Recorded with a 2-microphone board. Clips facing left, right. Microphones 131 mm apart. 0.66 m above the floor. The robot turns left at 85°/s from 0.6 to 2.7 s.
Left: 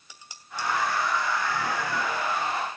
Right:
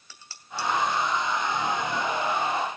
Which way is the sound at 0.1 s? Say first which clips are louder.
Right 1 dB; 15° left (ahead or behind).